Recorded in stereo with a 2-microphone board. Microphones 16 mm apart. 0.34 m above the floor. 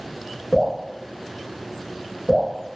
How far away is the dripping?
About 1.2 m.